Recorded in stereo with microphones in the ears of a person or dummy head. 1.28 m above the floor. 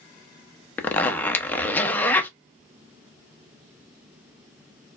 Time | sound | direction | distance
0.8 | a zipper | 5° left (ahead or behind) | 0.6 m